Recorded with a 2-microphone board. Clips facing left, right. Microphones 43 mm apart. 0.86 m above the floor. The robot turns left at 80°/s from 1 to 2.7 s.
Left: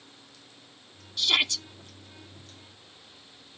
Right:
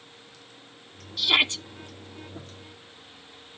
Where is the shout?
10° right; by 1.6 s 45° right.